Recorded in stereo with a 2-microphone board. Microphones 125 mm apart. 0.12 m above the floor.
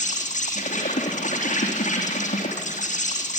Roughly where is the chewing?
I don't hear chewing.